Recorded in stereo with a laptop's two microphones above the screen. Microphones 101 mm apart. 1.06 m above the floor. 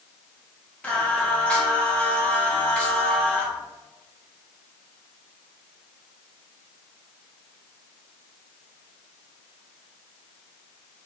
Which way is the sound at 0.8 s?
10° left (ahead or behind).